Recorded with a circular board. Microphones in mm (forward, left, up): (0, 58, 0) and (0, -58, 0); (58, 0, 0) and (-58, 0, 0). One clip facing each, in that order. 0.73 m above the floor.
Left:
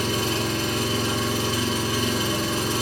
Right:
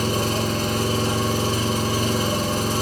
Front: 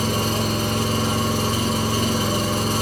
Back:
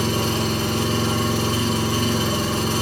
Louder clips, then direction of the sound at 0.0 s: Right 2 dB, even; 45° right.